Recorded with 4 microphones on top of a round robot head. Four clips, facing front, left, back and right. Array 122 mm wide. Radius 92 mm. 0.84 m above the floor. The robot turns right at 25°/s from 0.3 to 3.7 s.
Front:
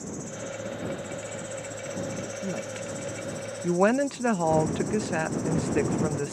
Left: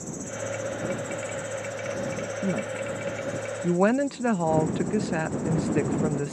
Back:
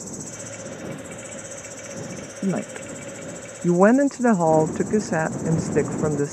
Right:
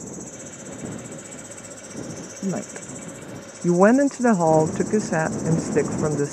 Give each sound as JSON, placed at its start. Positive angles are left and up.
{"t": 0.0, "sound": "an insect", "azimuth_deg": 180}
{"t": 2.4, "sound": "a woman speaking", "azimuth_deg": -165}